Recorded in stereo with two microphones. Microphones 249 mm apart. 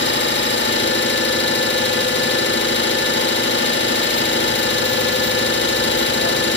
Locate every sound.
0.0 s an engine running: 50° left (ahead or behind), 1.3 m